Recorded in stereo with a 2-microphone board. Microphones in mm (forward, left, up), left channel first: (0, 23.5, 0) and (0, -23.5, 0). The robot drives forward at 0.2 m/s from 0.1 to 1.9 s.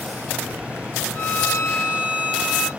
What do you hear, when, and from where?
1.1 s a violin: 35° left (ahead or behind), 1.1 m